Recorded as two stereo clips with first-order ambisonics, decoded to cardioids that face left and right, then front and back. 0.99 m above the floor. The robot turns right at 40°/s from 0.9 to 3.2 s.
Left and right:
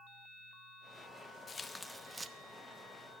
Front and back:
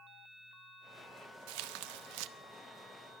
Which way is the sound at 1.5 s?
165° left.